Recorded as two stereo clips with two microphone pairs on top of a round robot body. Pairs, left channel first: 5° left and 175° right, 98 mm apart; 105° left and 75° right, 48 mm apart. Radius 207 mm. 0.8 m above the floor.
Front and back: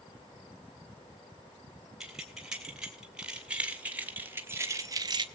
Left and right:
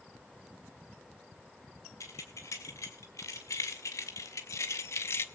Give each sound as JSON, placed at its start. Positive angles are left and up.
{"t": 2.0, "sound": "keys jangling", "azimuth_deg": 100, "distance_m": 3.0}